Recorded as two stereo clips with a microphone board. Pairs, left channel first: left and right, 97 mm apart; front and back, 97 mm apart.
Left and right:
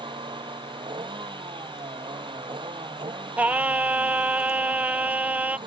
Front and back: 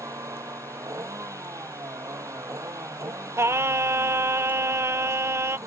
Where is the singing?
150° right.